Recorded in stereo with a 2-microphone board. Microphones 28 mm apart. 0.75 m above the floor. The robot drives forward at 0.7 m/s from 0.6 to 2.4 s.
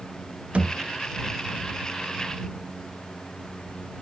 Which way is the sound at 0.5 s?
40° right (ahead or behind).